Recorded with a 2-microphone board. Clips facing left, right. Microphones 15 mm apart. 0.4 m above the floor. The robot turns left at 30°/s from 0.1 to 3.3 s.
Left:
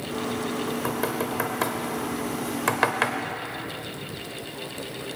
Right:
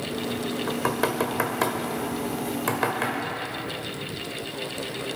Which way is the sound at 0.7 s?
25° right (ahead or behind).